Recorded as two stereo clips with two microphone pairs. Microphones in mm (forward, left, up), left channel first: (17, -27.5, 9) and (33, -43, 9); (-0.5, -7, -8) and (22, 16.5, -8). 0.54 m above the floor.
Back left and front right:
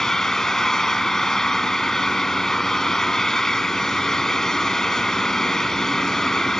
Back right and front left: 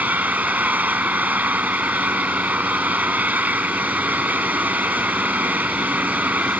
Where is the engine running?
70° left.